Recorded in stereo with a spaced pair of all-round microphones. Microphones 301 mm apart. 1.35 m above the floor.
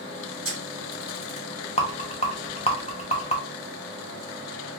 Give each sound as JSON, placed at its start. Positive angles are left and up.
{"t": 0.5, "sound": "a camera shutter", "side_deg": -45, "distance_m": 1.4}
{"t": 1.8, "sound": "a rattle", "side_deg": 20, "distance_m": 0.7}